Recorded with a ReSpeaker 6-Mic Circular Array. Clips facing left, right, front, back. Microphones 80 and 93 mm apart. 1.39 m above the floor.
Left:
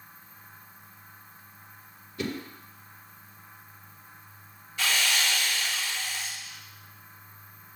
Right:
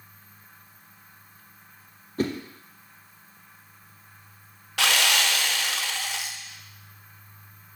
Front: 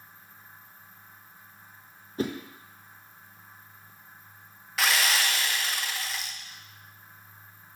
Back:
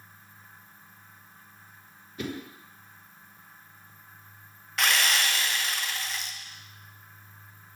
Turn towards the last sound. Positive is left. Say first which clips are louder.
# right 4 dB, even
turn(degrees=-85)